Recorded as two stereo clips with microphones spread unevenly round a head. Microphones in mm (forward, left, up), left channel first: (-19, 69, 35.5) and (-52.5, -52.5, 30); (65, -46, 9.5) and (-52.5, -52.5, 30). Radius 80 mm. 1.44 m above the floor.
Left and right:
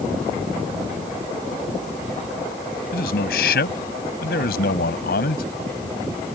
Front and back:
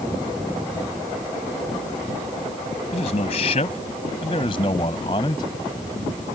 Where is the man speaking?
55° left; by 5.5 s 70° left.